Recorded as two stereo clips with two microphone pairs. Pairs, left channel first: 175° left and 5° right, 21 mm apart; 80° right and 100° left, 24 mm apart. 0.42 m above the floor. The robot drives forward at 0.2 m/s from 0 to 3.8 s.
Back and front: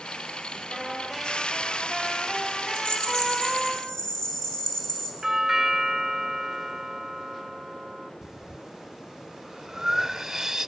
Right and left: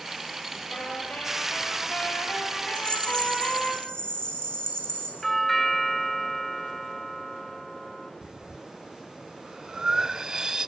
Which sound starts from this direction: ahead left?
Breathing, at 8.2 s.